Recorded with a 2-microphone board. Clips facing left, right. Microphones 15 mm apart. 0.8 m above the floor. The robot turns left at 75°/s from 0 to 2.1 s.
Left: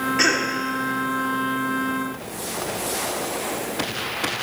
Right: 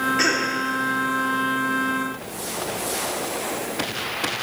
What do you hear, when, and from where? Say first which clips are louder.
0.2 s a cough: left 5 dB; 10° left (ahead or behind), 2.0 m; by 0.5 s 35° left (ahead or behind), 2.0 m